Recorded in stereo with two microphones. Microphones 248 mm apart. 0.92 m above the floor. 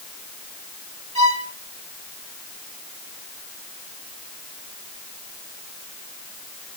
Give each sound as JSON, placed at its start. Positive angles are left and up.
{"t": 1.1, "sound": "a violin", "side_deg": 70, "distance_m": 2.5}